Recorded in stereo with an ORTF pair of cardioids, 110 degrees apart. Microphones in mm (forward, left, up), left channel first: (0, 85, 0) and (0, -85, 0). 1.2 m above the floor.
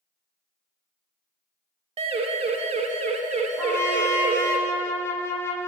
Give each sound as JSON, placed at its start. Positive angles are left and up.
{"t": 2.0, "sound": "a siren", "azimuth_deg": -40, "distance_m": 4.5}
{"t": 3.6, "sound": "a trumpet", "azimuth_deg": 15, "distance_m": 8.5}